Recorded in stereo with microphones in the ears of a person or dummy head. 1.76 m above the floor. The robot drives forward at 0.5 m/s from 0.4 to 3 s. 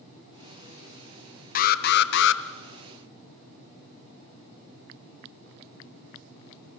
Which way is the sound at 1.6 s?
45° left (ahead or behind).